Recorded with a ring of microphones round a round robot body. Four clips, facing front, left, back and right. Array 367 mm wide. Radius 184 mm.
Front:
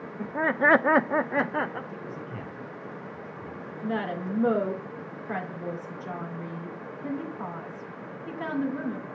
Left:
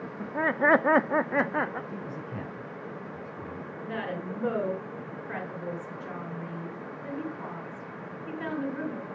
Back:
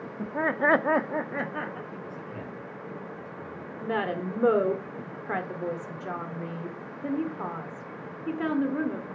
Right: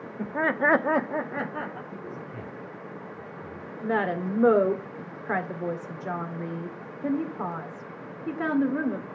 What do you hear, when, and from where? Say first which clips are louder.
0.2 s laughter: right 1 dB, front 1 dB; 100° right, 1.0 m; by 1.8 s 55° left, 1.4 m
1.9 s a man speaking: left 1 dB, front 1 dB; 65° left, 6 m
3.8 s a woman speaking: right 9 dB, back 1 dB; 120° right, 2 m